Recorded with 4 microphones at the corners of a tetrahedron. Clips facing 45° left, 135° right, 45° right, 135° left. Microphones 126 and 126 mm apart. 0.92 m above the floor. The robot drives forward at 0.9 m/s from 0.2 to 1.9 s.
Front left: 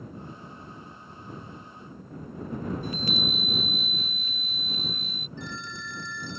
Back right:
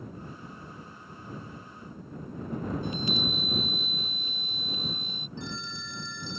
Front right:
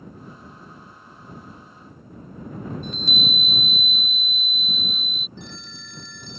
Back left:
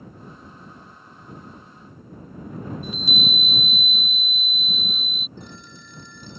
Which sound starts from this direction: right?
A phone ringing, at 5.4 s.